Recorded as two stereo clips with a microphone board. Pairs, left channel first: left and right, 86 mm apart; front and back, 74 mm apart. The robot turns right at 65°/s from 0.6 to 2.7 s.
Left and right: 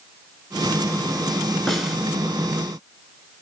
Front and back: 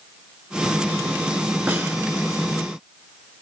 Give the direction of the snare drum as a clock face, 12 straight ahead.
7 o'clock.